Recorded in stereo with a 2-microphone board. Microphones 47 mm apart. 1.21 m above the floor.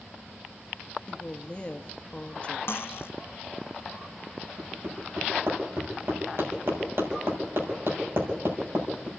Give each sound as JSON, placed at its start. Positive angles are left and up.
{"t": 1.1, "sound": "a woman speaking", "side_deg": 25, "distance_m": 1.5}
{"t": 2.7, "sound": "cutlery clinking", "side_deg": 60, "distance_m": 0.8}
{"t": 4.6, "sound": "hammering", "side_deg": -65, "distance_m": 6.5}